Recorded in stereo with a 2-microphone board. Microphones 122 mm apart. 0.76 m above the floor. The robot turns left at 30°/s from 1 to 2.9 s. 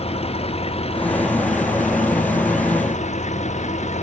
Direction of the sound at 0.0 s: 125° left.